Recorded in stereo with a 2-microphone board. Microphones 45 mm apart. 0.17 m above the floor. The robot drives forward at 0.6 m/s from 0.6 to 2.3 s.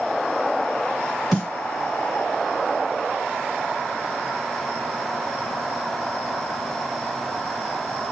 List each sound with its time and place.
1.3 s a snare drum: 5° left (ahead or behind), 2.5 m